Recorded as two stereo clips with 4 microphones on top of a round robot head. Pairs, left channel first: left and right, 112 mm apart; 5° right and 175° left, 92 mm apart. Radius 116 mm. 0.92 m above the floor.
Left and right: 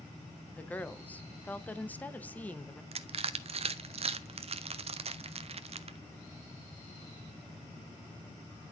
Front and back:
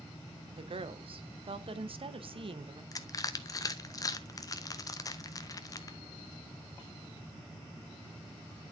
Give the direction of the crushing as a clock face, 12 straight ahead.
2 o'clock.